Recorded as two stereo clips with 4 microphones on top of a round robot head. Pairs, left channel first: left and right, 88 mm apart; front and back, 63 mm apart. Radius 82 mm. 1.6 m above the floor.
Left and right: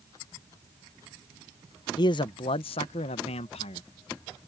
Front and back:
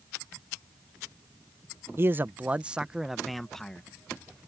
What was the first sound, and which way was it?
A man speaking, 130° left.